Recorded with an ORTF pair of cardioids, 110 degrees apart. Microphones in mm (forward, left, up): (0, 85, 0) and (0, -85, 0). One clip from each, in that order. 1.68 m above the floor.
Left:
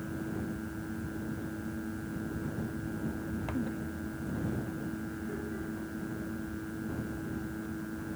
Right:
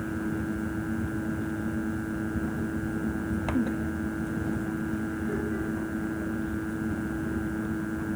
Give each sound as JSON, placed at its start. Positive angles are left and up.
{"t": 0.0, "sound": "a fan", "azimuth_deg": -45}